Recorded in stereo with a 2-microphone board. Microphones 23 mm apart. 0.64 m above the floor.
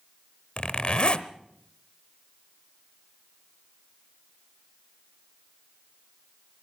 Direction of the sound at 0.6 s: 50° left (ahead or behind).